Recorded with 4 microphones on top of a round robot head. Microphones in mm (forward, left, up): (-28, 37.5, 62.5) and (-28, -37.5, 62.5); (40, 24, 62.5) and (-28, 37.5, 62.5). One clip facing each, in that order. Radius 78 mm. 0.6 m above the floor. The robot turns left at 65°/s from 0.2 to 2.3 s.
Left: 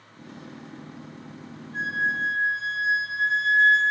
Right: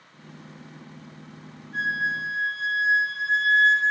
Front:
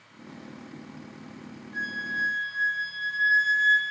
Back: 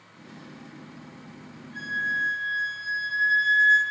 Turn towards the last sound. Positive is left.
turn(degrees=-120)